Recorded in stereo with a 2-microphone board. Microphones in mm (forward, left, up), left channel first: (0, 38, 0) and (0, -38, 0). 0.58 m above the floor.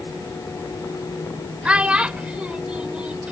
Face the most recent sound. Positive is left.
turn(degrees=-15)  # may be behind; listen again after turning